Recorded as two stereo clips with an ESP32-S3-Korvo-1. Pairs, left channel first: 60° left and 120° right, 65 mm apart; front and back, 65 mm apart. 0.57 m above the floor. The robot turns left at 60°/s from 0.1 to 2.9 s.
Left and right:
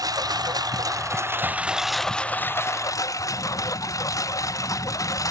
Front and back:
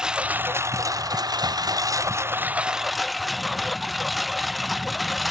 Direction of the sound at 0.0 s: 100° right.